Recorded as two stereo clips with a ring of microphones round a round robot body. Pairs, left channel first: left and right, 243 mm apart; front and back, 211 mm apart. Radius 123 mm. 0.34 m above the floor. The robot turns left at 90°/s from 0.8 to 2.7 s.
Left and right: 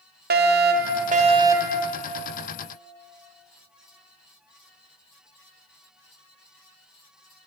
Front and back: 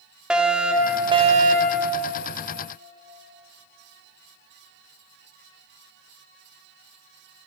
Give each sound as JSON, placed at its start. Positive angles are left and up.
{"t": 0.3, "sound": "a fire alarm", "azimuth_deg": -95, "distance_m": 2.5}